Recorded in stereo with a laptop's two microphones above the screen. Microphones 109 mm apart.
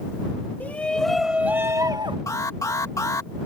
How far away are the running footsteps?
No running footsteps in this recording.